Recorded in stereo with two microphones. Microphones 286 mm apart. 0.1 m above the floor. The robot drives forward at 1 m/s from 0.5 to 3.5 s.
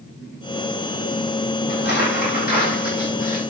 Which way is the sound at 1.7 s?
35° left (ahead or behind).